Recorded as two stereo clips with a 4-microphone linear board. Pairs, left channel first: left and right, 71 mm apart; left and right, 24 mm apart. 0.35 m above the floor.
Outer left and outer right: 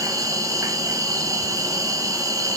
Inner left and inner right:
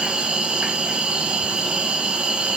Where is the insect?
55° right (ahead or behind), 1.8 m.